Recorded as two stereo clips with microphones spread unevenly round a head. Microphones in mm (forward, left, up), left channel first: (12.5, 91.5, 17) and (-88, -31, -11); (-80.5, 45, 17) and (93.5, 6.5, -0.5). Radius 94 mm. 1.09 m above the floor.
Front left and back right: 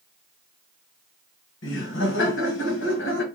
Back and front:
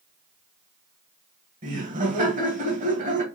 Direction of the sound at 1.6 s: 30° left.